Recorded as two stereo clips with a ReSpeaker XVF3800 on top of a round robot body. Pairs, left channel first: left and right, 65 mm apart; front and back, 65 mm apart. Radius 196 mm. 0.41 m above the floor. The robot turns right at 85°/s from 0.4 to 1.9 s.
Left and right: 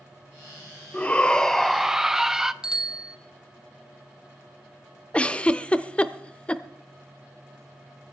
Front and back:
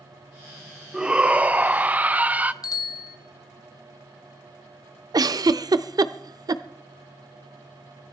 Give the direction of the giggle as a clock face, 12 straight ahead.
7 o'clock.